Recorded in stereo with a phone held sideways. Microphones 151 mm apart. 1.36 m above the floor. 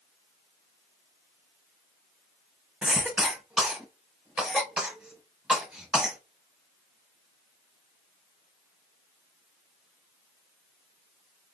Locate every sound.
2.8 s a cough: 5° right (ahead or behind), 1.2 m